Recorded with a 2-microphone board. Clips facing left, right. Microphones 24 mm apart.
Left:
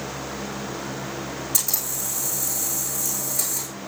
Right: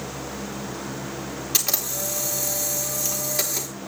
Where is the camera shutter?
60° right (ahead or behind), 4 m.